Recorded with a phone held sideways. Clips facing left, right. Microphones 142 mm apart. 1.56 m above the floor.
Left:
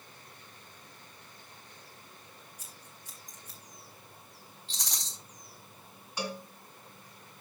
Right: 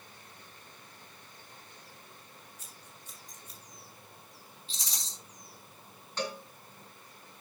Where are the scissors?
80° left, 3.5 m.